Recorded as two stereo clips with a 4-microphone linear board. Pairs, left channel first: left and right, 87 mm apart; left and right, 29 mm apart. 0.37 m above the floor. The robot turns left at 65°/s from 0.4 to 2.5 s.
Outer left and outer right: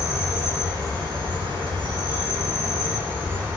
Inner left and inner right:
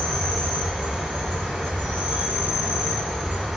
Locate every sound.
0.0 s an insect: 20° right, 1.4 m; by 3.6 s 155° right, 1.4 m